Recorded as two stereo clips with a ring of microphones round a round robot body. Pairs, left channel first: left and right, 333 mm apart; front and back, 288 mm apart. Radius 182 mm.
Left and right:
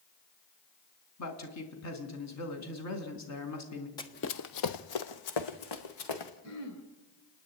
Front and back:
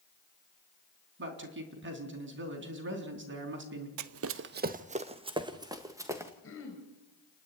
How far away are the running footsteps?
About 0.6 m.